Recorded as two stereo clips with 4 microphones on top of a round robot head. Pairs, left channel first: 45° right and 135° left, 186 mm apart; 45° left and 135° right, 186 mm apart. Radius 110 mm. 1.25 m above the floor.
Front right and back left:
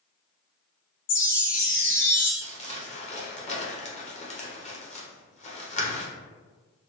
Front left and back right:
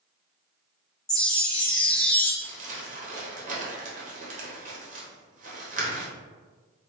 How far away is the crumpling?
About 0.9 m.